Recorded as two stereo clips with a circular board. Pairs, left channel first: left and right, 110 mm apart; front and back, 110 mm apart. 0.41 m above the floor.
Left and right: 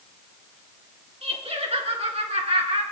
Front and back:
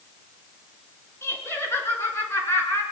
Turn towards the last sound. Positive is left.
turn(degrees=-65)